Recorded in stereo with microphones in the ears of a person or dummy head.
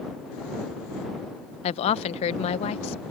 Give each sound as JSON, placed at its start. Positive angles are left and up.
{"t": 1.6, "sound": "a woman speaking", "side_deg": 35}